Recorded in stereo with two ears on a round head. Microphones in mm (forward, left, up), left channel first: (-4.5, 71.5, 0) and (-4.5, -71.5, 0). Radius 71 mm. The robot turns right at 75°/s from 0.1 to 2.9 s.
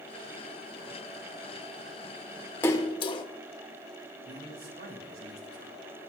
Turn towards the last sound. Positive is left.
turn(degrees=-60)  # may be behind; listen again after turning